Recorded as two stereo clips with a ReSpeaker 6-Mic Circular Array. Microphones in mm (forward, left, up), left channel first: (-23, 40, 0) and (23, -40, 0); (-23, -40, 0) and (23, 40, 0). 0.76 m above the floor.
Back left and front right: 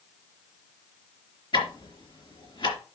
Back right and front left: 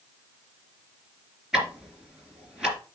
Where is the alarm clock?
No alarm clock in this recording.